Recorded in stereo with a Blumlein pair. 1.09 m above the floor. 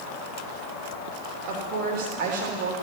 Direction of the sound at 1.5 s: 45° right.